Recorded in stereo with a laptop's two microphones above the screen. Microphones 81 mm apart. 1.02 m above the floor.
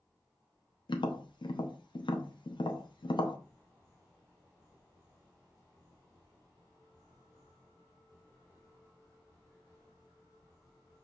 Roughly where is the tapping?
Left.